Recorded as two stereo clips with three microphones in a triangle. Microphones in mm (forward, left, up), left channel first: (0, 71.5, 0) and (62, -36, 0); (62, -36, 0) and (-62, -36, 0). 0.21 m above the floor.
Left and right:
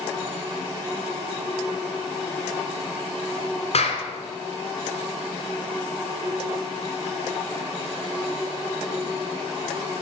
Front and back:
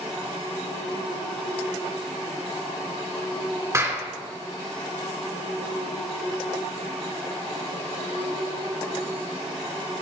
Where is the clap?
120° left, 2 m.